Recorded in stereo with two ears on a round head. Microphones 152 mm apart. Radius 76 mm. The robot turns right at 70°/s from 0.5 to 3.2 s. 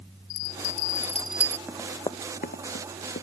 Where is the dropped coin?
I don't hear a dropped coin.